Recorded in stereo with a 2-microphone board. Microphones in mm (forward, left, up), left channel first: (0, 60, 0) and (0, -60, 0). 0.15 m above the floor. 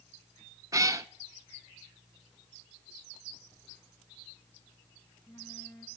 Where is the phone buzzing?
15° left (ahead or behind), 7.5 m.